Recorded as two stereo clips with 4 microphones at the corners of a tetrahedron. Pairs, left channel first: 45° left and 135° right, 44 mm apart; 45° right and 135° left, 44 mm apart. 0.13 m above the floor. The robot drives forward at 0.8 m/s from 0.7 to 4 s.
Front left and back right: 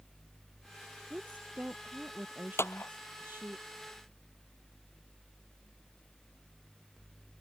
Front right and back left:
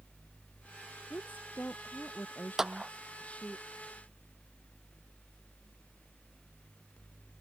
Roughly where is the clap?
Ahead left.